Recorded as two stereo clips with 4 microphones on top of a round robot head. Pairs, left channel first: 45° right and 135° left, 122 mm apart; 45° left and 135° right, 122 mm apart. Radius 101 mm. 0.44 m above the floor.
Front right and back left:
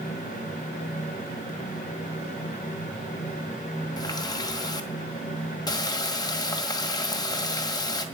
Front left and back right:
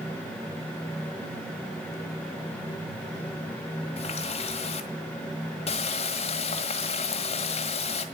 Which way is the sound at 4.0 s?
10° left.